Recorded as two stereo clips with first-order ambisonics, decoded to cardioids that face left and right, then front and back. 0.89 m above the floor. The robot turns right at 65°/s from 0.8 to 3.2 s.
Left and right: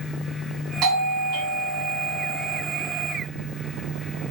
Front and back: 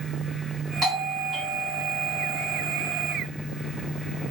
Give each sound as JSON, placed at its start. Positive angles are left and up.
{"t": 0.8, "sound": "a doorbell", "azimuth_deg": -120, "distance_m": 2.5}